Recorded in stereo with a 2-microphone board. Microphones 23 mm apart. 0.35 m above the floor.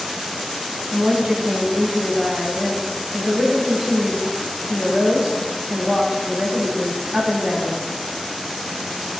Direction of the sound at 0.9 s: 45° right (ahead or behind).